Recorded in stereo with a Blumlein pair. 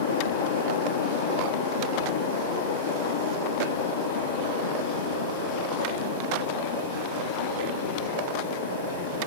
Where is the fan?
60° left, 2 m.